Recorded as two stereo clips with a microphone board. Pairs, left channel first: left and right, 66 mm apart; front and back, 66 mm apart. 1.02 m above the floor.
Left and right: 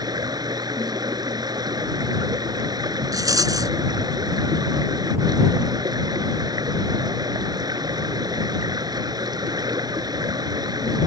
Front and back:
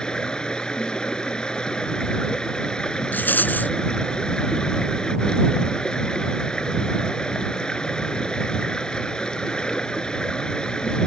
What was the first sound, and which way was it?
Running water, 80° right.